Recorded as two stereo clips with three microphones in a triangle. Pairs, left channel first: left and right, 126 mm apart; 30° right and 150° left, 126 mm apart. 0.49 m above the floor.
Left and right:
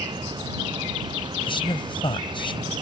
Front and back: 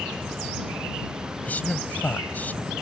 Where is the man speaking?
45° left.